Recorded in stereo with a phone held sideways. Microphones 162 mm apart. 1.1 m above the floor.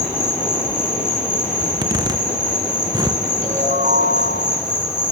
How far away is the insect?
About 4 m.